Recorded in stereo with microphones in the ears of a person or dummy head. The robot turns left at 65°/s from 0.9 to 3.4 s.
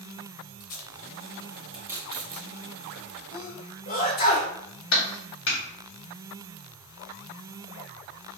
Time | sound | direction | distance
0.6 | tape being pulled | 50° left (ahead or behind) | 0.9 m
3.3 | a sneeze | 40° left (ahead or behind) | 0.9 m
4.9 | a clap | 75° left (ahead or behind) | 1.2 m